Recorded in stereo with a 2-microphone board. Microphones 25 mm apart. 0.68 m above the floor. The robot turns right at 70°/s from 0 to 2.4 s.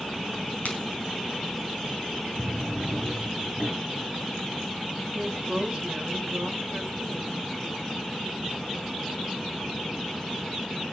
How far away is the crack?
About 4 m.